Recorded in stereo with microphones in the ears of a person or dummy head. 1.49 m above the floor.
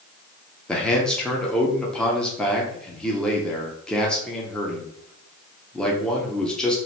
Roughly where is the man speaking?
Centre.